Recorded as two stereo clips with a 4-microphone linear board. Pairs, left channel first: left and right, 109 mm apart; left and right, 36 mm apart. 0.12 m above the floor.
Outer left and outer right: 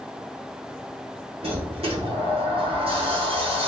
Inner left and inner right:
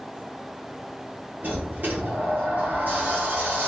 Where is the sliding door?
60° right (ahead or behind), 1.4 m.